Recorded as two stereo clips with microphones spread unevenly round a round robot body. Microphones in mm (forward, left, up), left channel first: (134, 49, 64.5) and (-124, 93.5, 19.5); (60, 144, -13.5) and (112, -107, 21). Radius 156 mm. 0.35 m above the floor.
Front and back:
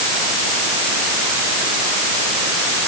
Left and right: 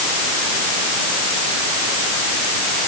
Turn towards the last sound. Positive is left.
No sound to turn to.